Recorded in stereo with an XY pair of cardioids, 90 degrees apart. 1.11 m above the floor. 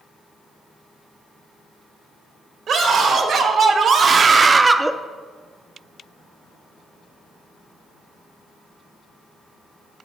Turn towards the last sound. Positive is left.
turn(degrees=-5)